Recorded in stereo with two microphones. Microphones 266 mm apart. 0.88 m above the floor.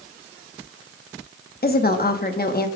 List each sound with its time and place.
1.6 s a woman speaking: 35° left (ahead or behind), 1.0 m